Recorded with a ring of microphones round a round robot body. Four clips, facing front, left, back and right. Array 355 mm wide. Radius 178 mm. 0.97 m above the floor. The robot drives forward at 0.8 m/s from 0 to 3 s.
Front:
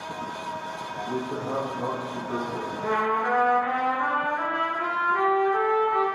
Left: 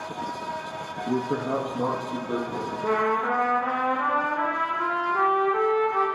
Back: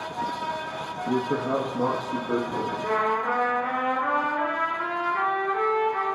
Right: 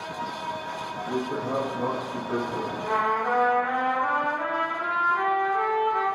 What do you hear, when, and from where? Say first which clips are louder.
1.1 s a man speaking: left 3 dB, back 6 dB; 130° left, 1.3 m; by 2.7 s 160° left, 2.5 m
2.8 s a trumpet: left 1 dB, front 1 dB; 75° left, 5.5 m